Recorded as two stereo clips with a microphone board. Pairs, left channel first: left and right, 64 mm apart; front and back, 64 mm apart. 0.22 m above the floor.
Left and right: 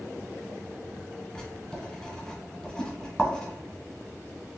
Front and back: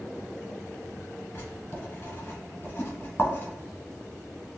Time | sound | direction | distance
1.4 | writing | 15° left | 1.0 m
2.8 | a whoosh | 100° right | 1.9 m